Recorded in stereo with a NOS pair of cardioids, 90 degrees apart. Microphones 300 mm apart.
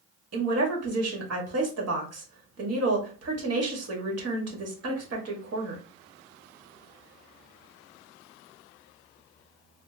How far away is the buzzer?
No buzzer in this recording.